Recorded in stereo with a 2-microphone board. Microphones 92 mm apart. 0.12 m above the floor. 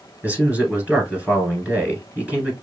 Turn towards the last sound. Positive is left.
turn(degrees=-15)  # may be behind; listen again after turning